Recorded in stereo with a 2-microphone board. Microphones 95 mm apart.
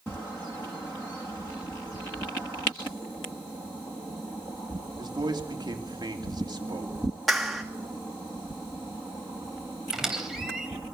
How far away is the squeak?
About 3.5 m.